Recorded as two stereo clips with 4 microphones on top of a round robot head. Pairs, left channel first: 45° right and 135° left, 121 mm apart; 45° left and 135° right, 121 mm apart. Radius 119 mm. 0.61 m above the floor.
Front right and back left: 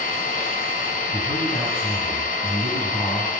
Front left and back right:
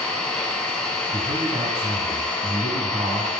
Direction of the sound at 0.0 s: 40° right.